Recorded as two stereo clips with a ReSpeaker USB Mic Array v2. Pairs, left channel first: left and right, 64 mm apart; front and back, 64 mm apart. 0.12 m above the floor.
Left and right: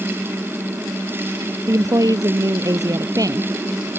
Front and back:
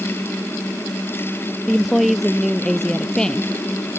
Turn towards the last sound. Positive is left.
turn(degrees=-75)